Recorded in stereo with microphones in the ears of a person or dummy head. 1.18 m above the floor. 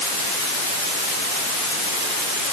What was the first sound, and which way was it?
Only background noise.